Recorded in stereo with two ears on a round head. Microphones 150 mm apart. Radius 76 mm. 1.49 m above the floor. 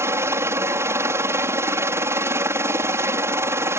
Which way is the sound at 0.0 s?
15° right (ahead or behind).